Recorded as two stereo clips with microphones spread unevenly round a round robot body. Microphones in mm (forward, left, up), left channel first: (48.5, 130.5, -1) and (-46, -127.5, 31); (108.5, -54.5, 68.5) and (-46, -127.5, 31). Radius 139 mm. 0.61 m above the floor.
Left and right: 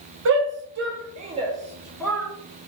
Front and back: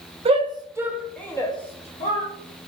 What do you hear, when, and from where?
0.2 s a shout: 145° right, 1.1 m; by 2.3 s 5° right, 1.1 m